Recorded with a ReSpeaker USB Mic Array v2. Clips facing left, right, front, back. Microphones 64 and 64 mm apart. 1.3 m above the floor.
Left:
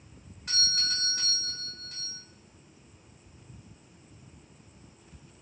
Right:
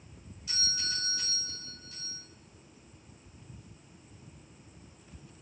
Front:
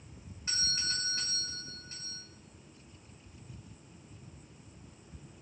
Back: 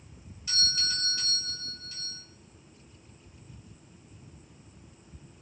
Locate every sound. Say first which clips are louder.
0.5 s a doorbell: left 4 dB, back 3 dB; 55° left, 5 m